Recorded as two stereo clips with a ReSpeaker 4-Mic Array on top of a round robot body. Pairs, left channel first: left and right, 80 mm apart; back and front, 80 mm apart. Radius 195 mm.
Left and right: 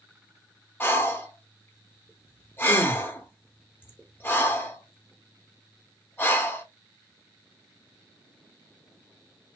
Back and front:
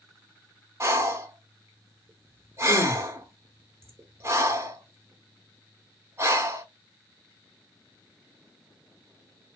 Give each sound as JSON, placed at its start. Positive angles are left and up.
{"t": 0.8, "sound": "breathing", "azimuth_deg": 40, "distance_m": 0.9}